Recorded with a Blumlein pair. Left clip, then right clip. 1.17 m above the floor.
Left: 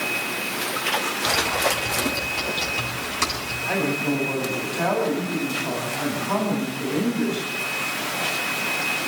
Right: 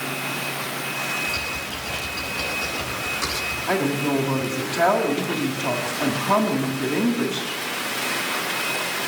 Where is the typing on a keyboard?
30° left, 8.5 m.